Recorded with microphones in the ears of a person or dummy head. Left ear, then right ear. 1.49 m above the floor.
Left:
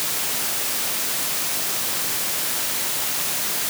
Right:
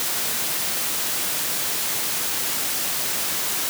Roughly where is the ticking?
No ticking in this recording.